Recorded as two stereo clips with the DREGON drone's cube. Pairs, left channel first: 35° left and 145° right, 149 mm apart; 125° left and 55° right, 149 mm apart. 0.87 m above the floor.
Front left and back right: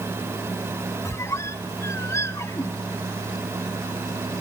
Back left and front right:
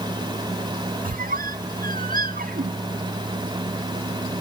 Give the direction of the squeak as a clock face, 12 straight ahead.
1 o'clock.